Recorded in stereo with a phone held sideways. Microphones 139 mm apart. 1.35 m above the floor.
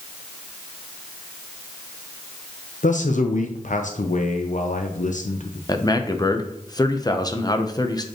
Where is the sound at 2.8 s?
65° left (ahead or behind), 0.6 m.